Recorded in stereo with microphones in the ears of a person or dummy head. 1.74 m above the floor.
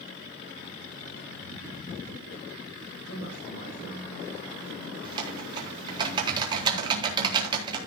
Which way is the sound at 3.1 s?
65° left (ahead or behind).